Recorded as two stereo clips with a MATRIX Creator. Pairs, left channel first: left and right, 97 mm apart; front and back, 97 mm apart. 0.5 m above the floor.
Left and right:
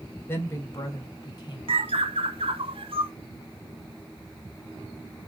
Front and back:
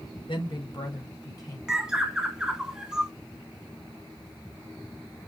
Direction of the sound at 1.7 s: 100° right.